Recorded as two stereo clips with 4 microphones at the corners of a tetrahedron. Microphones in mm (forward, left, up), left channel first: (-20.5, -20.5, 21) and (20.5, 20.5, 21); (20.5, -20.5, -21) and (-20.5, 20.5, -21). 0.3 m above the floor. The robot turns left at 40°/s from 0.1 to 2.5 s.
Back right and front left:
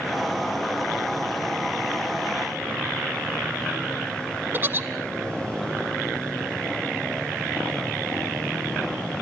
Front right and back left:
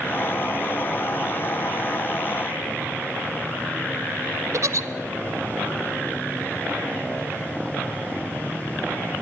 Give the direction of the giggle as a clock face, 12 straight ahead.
9 o'clock.